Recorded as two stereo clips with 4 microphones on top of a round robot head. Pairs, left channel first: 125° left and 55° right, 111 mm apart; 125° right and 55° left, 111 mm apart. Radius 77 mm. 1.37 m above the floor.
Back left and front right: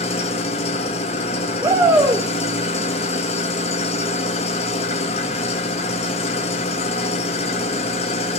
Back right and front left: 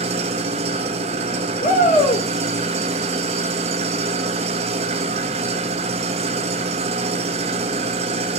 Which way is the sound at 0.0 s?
90° left.